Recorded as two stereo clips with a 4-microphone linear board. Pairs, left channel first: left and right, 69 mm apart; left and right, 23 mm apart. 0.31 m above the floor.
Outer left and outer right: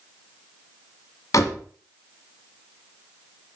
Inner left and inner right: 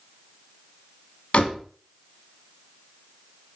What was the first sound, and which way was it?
A door slam, 55° left (ahead or behind).